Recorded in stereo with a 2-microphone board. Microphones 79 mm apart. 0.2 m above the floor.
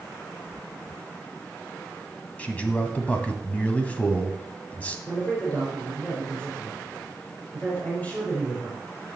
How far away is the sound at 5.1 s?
About 4 m.